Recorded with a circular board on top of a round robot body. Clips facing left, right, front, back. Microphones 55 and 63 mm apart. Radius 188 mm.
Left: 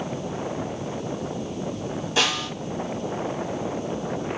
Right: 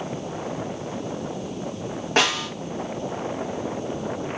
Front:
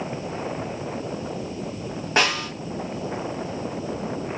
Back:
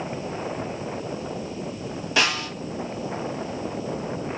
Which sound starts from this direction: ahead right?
A snare drum, at 2.2 s.